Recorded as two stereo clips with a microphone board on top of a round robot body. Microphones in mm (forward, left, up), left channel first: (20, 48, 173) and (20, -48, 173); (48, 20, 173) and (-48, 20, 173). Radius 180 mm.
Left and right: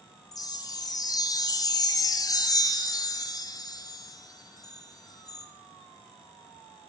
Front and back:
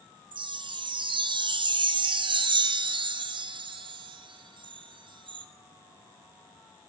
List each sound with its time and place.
0.3 s a chime: 145° left, 0.6 m